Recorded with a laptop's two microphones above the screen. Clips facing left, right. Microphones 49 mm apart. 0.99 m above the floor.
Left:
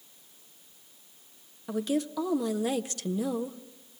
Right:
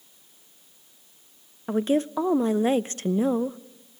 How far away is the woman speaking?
About 0.6 m.